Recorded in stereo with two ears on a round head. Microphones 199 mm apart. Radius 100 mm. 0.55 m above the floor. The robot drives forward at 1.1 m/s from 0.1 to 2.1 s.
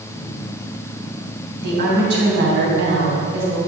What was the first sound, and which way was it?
A woman speaking, 60° right (ahead or behind).